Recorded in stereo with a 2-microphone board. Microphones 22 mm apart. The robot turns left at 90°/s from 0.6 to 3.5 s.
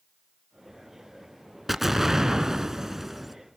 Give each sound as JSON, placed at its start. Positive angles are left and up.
{"t": 1.7, "sound": "an explosion", "side_deg": -10, "distance_m": 1.5}